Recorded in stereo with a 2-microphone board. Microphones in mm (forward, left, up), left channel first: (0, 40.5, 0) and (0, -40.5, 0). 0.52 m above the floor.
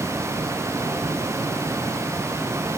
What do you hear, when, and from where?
Only background noise.